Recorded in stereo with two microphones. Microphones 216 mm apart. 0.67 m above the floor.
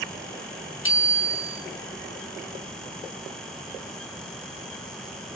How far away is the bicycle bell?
About 5.5 m.